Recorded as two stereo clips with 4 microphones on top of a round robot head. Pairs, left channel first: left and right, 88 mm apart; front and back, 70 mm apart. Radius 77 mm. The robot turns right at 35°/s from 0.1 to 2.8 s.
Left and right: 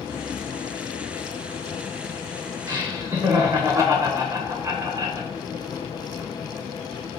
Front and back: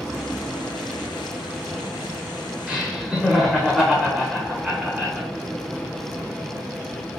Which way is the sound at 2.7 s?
105° right.